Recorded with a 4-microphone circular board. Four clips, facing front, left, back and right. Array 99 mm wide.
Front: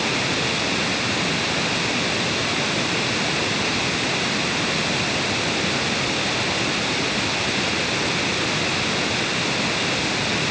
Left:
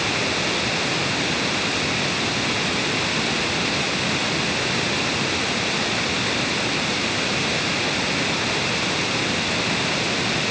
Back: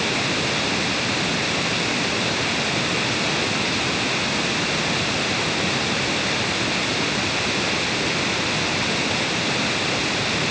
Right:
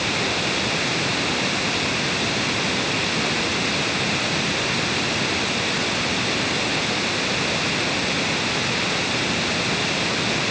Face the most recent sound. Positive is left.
No sound to turn to.